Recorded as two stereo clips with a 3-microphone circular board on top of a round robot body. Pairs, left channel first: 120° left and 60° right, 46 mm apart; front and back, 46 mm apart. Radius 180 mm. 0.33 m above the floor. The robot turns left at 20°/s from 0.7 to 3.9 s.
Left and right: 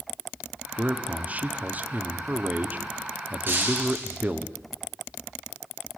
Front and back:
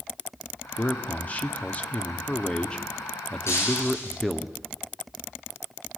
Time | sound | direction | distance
0.8 | a man speaking | 15° right | 1.6 m
3.5 | breaking glass | 20° right | 6.5 m